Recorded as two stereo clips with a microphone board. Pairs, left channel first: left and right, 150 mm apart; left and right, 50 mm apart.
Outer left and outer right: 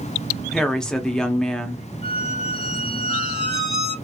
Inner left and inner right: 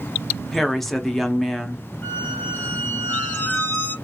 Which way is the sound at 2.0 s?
40° left (ahead or behind).